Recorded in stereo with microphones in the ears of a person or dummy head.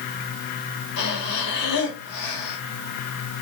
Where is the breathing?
65° left (ahead or behind), 2.5 m.